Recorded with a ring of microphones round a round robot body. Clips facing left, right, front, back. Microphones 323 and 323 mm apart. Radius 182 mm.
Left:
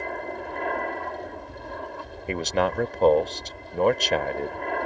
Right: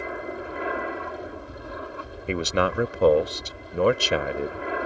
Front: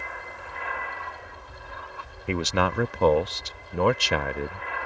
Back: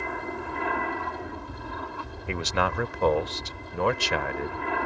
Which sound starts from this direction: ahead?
A man speaking, at 2.3 s.